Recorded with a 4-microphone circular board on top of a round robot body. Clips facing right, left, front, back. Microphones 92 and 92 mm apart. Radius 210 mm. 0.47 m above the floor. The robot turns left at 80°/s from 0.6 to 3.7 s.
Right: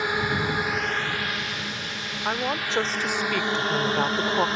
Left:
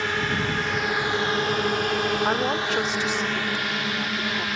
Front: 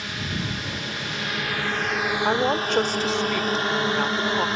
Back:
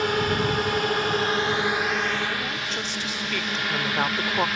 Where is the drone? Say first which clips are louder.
Even, back 8 dB; 165° right; by 4.6 s 45° right.